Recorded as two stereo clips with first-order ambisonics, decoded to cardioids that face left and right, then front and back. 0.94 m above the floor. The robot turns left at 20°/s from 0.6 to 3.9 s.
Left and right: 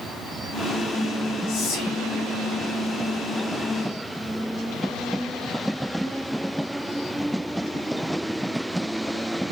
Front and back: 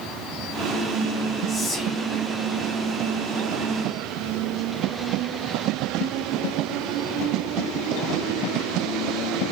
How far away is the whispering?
About 0.7 m.